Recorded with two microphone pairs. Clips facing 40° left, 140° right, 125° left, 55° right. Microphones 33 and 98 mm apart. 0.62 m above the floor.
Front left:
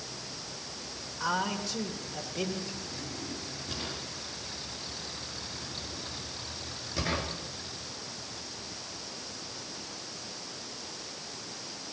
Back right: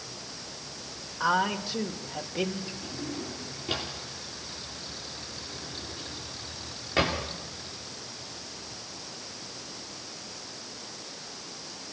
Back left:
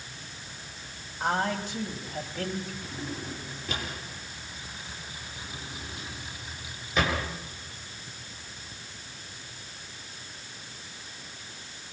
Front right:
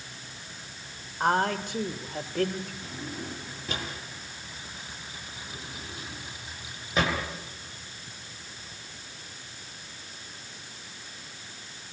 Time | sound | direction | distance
1.2 | a man speaking | 80° right | 2.5 m
2.8 | a drawer | 110° right | 8 m